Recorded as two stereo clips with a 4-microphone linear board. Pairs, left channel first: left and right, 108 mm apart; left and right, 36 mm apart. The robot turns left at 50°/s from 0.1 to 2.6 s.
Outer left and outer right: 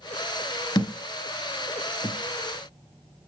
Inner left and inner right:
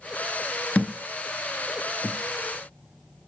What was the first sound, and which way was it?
A thud, 40° left (ahead or behind).